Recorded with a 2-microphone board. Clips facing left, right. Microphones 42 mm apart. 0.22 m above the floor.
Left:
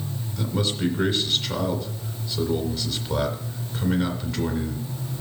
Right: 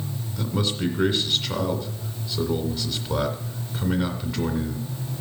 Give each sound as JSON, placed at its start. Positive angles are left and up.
{"t": 0.4, "sound": "a man speaking", "side_deg": -10, "distance_m": 2.0}